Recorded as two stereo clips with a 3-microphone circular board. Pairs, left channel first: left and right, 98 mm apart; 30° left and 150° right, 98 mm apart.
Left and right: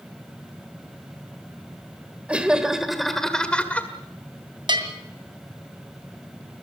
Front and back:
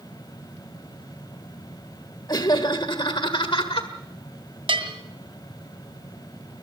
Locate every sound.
2.3 s laughter: 10° right, 1.7 m; by 3.9 s 20° left, 1.6 m
4.7 s a bell: 125° right, 2.5 m